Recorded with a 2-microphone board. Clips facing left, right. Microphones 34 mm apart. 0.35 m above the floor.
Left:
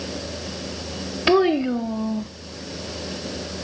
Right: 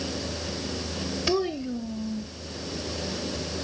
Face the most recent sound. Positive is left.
turn(degrees=65)  # may be behind; listen again after turning